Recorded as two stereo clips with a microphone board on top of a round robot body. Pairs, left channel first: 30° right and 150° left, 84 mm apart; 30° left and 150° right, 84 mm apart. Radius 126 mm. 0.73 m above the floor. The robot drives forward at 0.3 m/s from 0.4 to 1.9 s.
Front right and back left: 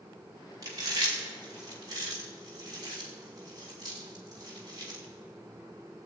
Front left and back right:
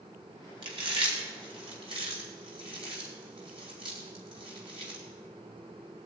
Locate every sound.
0.6 s chewing: 165° right, 3 m